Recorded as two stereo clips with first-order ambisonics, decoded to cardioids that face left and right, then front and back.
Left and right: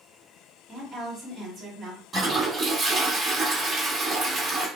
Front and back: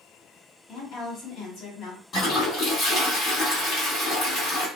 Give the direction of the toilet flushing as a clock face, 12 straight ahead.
1 o'clock.